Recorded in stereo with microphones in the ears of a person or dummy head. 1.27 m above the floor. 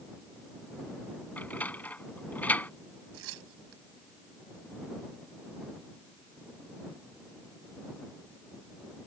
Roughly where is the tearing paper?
Right.